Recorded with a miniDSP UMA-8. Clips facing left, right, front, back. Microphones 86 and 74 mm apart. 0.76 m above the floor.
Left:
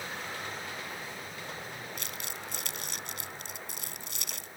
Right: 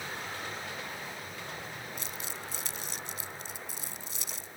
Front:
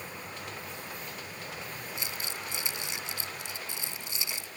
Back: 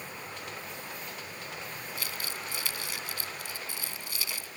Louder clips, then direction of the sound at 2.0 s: Even, back 1 dB; 70° left.